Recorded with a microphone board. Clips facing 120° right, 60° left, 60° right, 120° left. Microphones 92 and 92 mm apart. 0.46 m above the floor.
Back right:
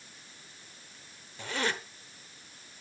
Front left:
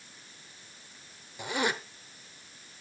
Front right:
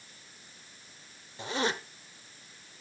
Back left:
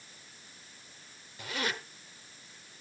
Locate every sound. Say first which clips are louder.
1.4 s a zipper: front left 2 dB, front right 5 dB; 10° right, 1.1 m